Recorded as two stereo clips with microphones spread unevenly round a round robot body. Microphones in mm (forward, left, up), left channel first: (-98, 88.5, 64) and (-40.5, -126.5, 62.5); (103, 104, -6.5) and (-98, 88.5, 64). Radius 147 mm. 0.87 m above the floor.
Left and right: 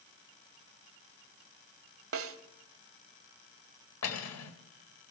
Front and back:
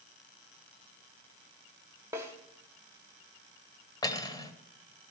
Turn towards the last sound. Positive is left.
turn(degrees=80)